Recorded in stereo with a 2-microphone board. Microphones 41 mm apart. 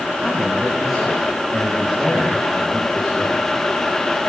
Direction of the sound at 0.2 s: 10° right (ahead or behind).